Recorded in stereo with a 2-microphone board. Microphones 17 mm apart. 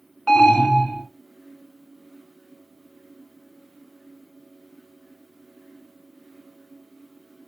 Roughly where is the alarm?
Left.